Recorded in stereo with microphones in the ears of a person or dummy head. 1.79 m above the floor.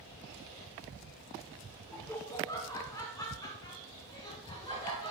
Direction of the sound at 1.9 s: 10° left (ahead or behind).